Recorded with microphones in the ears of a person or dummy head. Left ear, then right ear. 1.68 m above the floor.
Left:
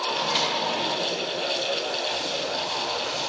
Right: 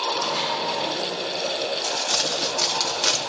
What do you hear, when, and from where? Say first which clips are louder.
0.1 s a microwave: even; 75° left (ahead or behind), 4 m
1.8 s crumpling: right 4 dB; 75° right (ahead or behind), 0.9 m